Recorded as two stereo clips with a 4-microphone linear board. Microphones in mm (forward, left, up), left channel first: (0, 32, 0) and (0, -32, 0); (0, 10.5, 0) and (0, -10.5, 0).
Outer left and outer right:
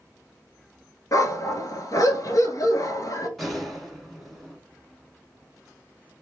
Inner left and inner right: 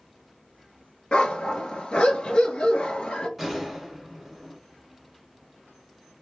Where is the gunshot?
Centre (ahead or behind), 1.2 m.